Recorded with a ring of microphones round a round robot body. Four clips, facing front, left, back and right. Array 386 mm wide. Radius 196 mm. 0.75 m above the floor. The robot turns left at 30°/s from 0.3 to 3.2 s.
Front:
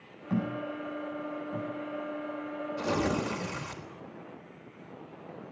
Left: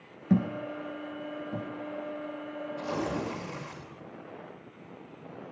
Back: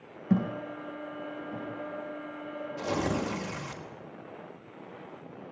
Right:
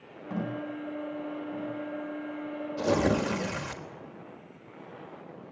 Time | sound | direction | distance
0.3 | a thud | 130° left | 8.5 m
2.8 | tearing paper | 75° right | 4 m